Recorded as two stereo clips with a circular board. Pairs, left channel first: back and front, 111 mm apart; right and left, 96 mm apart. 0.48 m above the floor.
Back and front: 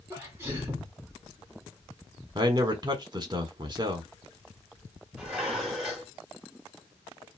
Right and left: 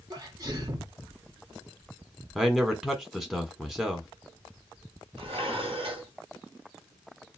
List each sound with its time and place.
0.1 s a sneeze: 60° left, 1.1 m
2.4 s a man speaking: 5° left, 1.5 m
5.2 s dishes clattering: 85° left, 2.0 m